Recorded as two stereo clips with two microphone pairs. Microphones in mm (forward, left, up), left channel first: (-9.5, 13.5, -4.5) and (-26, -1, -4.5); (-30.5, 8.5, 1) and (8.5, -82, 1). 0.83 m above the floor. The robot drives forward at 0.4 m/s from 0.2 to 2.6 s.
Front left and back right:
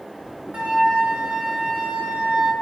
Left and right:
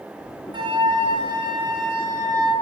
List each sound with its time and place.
0.5 s a flute: 105° right, 3 m; by 2.5 s 120° right, 3 m